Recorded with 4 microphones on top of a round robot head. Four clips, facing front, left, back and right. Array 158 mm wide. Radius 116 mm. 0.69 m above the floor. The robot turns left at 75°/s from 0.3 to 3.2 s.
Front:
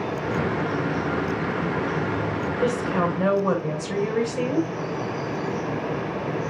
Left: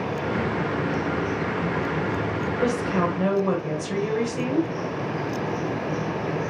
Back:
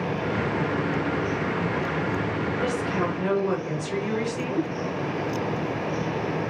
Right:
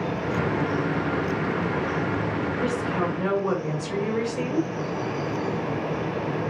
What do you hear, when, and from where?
2.6 s a woman speaking: 60° left, 5 m; by 4.7 s 15° left, 5 m